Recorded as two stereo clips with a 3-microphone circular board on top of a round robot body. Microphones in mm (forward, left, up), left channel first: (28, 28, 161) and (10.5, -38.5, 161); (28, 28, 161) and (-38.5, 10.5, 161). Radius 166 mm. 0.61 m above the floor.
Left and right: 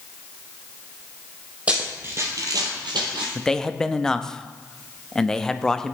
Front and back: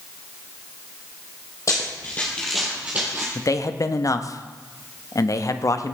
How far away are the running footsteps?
About 1.7 m.